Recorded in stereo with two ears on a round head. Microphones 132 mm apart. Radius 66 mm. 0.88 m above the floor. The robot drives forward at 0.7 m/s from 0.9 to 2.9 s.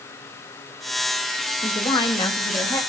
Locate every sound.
1.6 s a woman speaking: 35° left (ahead or behind), 1.1 m; by 2.8 s 20° left (ahead or behind), 1.7 m